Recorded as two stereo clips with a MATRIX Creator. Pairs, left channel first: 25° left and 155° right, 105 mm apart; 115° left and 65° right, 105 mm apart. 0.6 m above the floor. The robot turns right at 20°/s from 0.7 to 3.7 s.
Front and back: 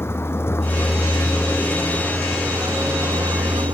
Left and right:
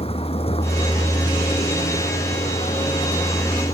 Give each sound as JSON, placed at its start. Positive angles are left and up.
{"t": 0.0, "sound": "a vehicle", "azimuth_deg": 90}